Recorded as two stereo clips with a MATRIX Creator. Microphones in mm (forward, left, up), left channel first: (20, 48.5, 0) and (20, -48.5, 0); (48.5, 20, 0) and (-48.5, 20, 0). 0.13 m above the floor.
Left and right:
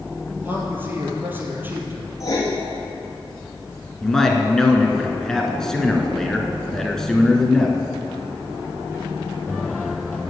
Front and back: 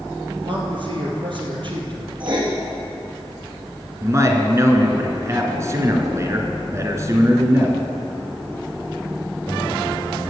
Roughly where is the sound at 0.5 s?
Behind right.